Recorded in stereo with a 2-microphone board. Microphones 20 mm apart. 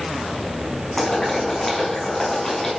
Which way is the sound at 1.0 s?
10° left (ahead or behind).